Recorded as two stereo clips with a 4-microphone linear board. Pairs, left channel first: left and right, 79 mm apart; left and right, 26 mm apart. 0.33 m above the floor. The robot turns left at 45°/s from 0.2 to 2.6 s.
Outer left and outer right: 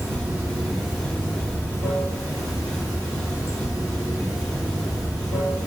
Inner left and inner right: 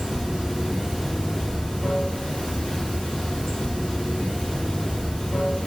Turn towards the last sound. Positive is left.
turn(degrees=105)